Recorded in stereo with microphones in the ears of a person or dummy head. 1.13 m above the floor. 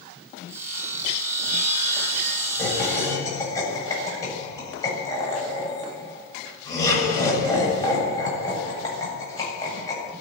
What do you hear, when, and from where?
0.5 s sawing: 15° right (ahead or behind), 7.5 m
2.6 s laughter: 20° left (ahead or behind), 8 m